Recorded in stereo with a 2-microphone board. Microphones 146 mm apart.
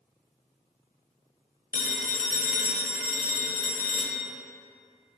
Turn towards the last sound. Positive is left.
turn(degrees=70)  # may be behind; listen again after turning